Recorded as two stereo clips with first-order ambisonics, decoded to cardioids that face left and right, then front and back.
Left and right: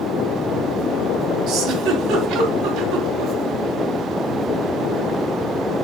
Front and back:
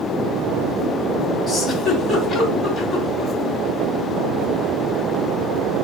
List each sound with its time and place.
1.5 s a giggle: 95° right, 2.5 m